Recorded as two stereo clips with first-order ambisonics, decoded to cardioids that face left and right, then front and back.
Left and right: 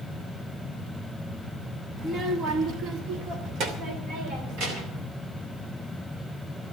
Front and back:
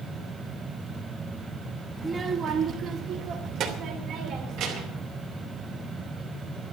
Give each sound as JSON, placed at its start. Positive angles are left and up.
{"t": 2.0, "sound": "a child speaking", "azimuth_deg": -110, "distance_m": 0.9}